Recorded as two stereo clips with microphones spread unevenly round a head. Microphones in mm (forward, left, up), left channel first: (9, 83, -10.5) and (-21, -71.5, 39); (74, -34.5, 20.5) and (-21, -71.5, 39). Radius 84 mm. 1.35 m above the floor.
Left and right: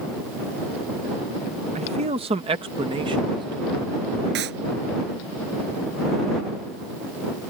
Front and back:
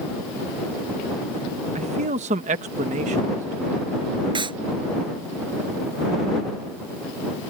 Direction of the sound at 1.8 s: 155° right.